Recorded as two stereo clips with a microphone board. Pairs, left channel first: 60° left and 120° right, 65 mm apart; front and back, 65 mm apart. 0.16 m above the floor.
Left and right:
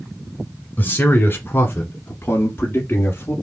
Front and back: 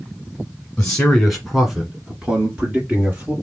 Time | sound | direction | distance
0.8 | a man speaking | 60° left | 1.2 m